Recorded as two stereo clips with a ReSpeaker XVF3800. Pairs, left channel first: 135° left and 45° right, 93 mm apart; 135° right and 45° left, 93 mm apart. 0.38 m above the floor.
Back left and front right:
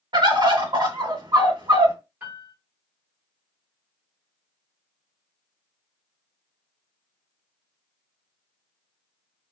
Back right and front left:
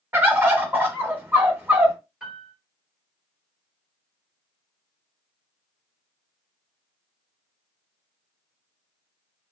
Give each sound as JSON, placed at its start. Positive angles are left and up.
{"t": 0.1, "sound": "a bird", "azimuth_deg": -15, "distance_m": 0.7}
{"t": 2.2, "sound": "a piano", "azimuth_deg": -20, "distance_m": 1.2}